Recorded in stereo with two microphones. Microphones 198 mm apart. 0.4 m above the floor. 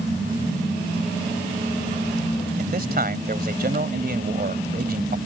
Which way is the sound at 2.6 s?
50° right (ahead or behind).